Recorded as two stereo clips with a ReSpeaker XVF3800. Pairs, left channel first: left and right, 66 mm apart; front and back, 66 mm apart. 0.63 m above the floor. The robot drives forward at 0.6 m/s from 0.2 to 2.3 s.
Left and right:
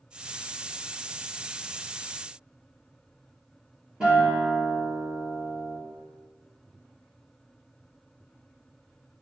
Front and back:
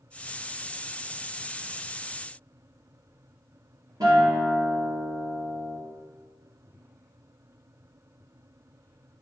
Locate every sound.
4.0 s a guitar: 165° right, 2.5 m